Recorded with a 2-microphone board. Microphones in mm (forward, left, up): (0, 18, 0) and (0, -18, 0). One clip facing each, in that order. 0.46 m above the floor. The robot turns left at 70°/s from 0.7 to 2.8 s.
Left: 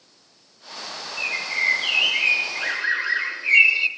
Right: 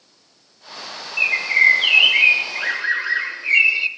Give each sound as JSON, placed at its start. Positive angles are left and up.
{"t": 1.2, "sound": "a bird", "azimuth_deg": -60, "distance_m": 0.7}